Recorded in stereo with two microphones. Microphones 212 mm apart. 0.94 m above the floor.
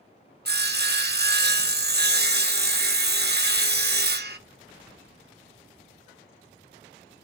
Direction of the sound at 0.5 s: 50° right (ahead or behind).